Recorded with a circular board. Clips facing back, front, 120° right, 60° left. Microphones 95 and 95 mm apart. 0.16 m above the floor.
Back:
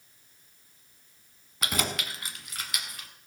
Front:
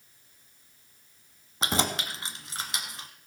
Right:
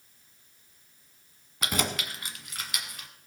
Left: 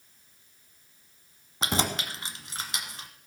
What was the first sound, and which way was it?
Keys jangling, 30° left.